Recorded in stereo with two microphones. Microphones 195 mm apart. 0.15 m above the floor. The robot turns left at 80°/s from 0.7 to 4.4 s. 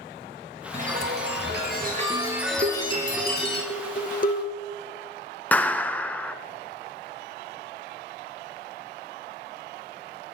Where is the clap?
10° left (ahead or behind), 1.3 m.